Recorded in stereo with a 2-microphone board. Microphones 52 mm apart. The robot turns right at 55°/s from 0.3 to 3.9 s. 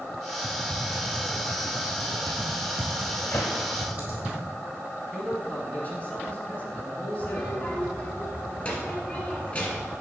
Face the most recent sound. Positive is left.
turn(degrees=30)  # may be behind; listen again after turning